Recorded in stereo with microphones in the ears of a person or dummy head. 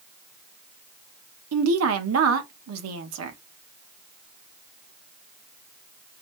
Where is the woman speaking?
80° right, 0.9 m.